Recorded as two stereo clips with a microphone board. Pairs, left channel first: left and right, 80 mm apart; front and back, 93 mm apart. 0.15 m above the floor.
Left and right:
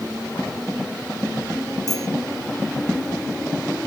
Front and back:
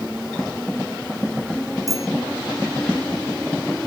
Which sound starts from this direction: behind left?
A bicycle bell, at 1.9 s.